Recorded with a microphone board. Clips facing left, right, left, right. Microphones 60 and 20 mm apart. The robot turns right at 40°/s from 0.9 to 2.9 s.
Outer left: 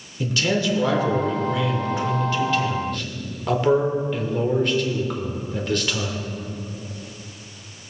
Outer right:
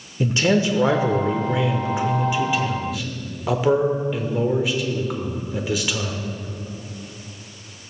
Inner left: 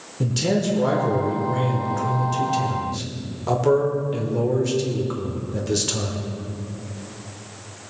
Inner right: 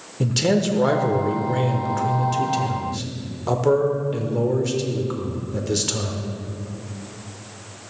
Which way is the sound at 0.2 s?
25° right (ahead or behind).